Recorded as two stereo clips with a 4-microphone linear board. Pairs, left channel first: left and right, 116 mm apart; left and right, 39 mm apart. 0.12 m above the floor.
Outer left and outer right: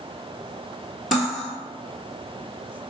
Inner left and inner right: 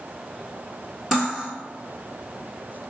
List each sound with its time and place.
1.1 s cutlery clinking: centre (ahead or behind), 1.3 m